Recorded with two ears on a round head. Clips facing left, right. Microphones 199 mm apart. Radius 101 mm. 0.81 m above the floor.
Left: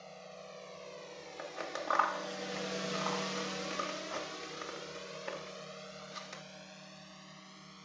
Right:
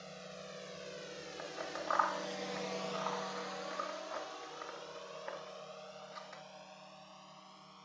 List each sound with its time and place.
0.0 s a drone: 15° right (ahead or behind); by 7.8 s 25° left (ahead or behind)
1.4 s scissors: 40° left (ahead or behind)